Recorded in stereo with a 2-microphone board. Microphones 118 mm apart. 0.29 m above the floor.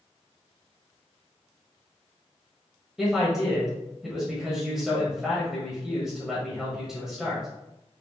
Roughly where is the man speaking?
Centre.